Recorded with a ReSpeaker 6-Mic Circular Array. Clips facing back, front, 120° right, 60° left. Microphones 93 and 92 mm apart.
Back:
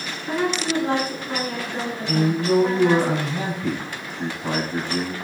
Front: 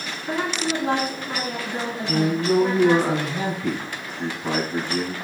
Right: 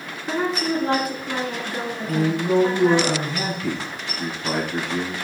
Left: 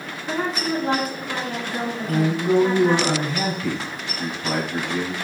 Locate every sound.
0.3 s a woman speaking: 35° right, 1.4 m
2.0 s a man speaking: 125° left, 2 m